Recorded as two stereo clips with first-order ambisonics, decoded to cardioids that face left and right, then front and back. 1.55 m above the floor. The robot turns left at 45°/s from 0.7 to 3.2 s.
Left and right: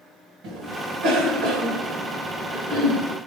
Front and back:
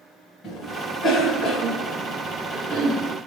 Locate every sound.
0.4 s a cough: 60° right, 2 m; by 3.2 s 170° right, 2 m